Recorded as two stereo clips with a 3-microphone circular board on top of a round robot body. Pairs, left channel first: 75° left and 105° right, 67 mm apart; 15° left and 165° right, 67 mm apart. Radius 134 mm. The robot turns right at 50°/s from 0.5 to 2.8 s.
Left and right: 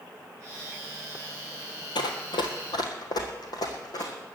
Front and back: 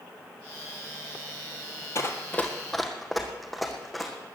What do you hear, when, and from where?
1.9 s running footsteps: 60° left, 1.0 m; by 4.1 s 105° left, 2.5 m